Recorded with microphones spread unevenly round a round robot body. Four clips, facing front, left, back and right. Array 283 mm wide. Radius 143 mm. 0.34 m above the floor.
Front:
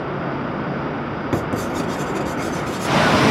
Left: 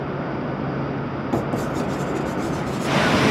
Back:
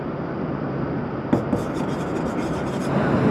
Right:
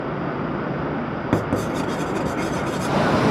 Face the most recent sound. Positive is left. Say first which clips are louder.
# right 1 dB, back 1 dB
turn(degrees=-80)